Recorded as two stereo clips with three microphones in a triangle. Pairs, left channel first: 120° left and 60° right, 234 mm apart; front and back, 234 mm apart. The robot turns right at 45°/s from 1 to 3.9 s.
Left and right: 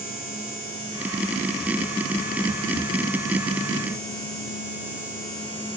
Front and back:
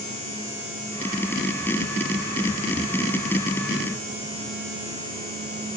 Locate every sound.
Only background noise.